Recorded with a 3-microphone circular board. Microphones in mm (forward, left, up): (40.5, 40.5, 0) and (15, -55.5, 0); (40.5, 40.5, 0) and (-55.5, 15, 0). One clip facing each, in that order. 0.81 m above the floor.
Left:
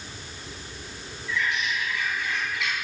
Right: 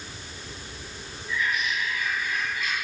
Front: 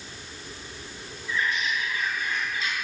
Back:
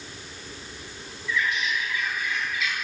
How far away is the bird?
About 8 m.